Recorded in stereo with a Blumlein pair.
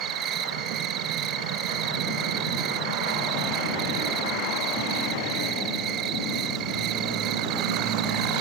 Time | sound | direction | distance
0.0 | an insect | 30° right | ?